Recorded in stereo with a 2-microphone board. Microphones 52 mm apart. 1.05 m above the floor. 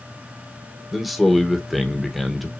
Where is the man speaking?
Centre (ahead or behind), 1.1 m.